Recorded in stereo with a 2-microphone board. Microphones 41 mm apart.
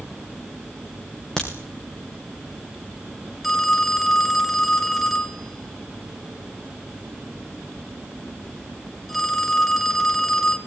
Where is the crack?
15° left (ahead or behind), 5 m.